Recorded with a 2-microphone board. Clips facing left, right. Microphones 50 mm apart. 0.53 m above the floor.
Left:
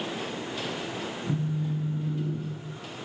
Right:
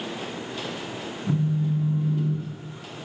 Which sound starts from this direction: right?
A phone buzzing, at 1.3 s.